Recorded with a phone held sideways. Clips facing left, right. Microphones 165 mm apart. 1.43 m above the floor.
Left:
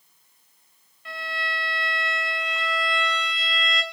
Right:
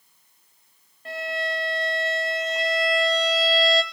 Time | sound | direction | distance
1.1 | a violin | 40° right (ahead or behind) | 2.5 m